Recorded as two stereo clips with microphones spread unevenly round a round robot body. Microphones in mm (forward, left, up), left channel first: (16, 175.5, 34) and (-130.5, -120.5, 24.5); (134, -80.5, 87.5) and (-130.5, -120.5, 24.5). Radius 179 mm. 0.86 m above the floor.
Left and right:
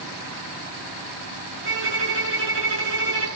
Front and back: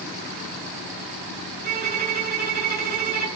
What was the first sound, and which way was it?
A violin, 115° right.